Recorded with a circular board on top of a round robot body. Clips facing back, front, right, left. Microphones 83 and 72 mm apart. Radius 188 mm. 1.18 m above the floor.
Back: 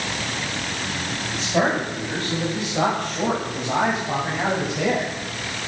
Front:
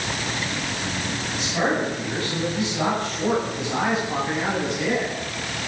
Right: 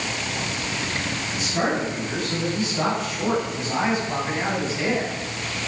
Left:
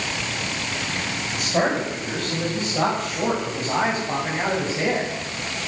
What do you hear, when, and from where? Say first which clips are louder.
1.3 s a man speaking: back 2 dB, left 3 dB; 125° left, 8.5 m; by 5.1 s 145° left, 6.5 m